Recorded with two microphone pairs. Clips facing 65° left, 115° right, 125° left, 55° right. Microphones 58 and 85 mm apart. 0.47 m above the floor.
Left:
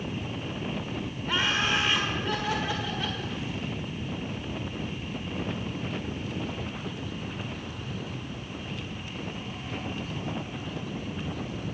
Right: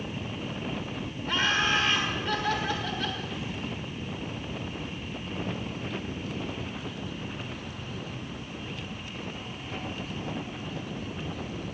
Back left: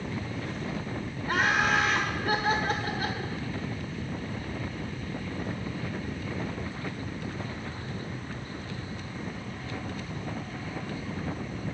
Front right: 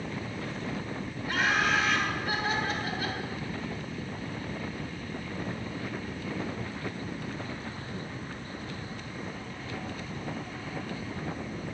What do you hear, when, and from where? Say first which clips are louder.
1.3 s laughter: right 1 dB, back left 2 dB; 140° left, 1.7 m